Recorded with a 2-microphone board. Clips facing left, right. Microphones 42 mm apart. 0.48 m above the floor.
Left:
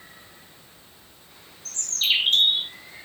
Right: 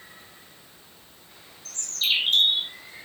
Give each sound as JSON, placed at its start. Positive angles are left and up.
{"t": 1.6, "sound": "a bird", "side_deg": 45, "distance_m": 3.5}